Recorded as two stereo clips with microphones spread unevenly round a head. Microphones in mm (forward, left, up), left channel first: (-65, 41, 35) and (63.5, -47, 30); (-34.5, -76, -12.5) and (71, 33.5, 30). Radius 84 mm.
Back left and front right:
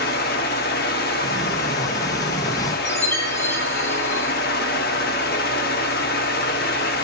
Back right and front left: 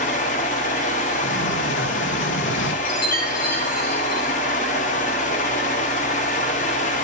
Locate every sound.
0.0 s a fan: 175° left, 0.7 m
1.2 s a sliding door: 145° right, 0.5 m
2.9 s a chime: 145° right, 1.3 m